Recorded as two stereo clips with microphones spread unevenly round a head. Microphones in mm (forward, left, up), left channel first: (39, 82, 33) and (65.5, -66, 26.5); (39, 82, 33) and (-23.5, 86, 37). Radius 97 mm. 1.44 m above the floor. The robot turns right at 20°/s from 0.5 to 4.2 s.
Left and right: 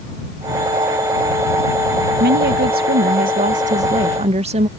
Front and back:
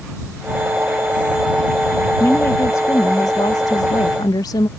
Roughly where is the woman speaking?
Right.